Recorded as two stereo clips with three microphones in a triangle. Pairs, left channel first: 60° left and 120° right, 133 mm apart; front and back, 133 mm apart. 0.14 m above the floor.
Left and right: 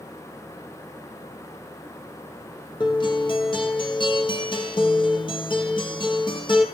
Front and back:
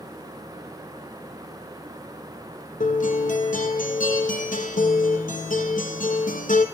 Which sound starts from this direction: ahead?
A guitar, at 2.8 s.